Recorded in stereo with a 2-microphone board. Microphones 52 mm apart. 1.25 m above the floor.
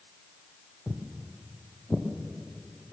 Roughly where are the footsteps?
Centre.